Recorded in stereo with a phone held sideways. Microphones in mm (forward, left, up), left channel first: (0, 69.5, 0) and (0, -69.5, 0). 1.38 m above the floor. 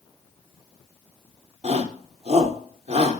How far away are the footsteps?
I don't hear footsteps.